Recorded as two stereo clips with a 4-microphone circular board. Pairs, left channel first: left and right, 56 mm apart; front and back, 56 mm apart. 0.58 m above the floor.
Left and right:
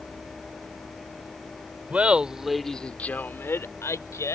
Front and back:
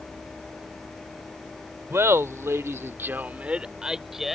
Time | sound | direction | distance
1.9 | laughter | 150° right | ?